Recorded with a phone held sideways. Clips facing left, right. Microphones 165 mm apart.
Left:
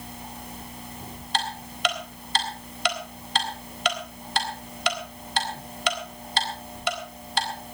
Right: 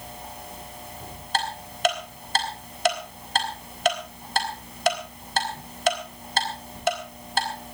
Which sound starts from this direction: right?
Ticking, at 1.3 s.